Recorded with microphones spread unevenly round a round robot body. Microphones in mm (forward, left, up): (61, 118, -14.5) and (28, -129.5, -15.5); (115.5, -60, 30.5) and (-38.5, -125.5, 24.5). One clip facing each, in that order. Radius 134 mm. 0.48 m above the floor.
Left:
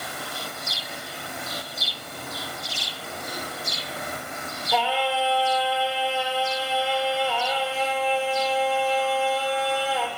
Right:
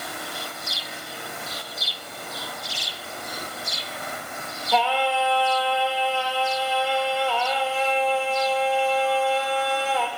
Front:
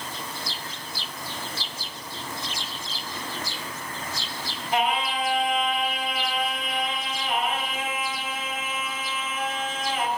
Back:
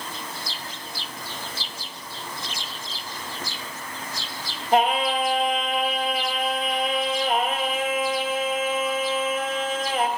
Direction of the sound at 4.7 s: 165° left.